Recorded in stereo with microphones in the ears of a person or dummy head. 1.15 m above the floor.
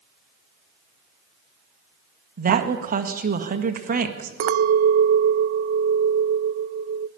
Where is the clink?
50° right (ahead or behind), 0.7 m.